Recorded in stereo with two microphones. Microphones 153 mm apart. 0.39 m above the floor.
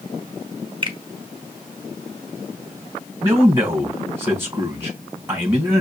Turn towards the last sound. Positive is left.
turn(degrees=-15)  # may be behind; listen again after turning